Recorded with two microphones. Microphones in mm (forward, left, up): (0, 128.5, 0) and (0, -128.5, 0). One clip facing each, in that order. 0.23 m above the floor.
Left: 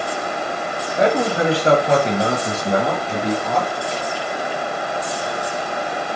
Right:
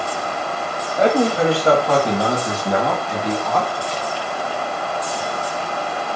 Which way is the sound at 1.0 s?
15° left (ahead or behind).